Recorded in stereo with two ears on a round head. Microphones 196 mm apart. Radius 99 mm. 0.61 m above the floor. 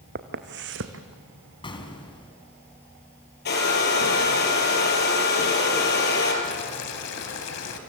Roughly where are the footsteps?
Right.